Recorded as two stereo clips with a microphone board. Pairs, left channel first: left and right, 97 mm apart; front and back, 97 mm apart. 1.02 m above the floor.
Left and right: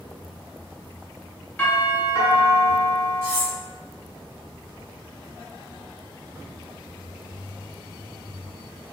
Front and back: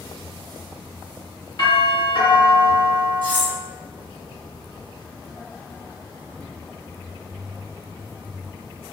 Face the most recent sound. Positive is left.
turn(degrees=-145)